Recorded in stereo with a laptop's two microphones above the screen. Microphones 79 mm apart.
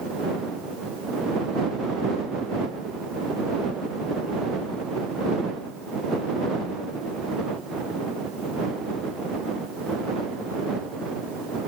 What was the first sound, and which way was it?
Only background noise.